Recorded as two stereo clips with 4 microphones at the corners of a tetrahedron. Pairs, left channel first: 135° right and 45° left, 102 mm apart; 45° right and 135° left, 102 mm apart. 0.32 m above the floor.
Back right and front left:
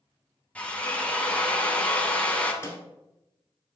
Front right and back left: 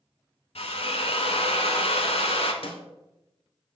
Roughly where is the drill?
Ahead right.